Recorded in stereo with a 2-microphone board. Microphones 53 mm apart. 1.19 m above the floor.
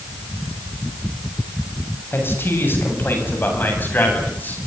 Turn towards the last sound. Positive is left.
turn(degrees=35)  # may be behind; listen again after turning